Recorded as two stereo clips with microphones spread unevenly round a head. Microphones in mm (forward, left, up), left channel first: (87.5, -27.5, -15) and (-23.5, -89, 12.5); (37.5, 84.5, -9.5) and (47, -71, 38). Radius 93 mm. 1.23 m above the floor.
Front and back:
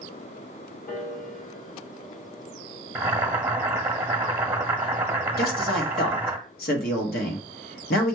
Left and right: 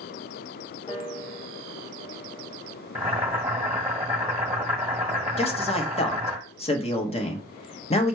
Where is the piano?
35° left, 2.5 m.